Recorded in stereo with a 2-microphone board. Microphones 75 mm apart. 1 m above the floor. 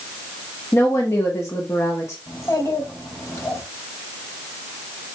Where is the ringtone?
I don't hear a ringtone.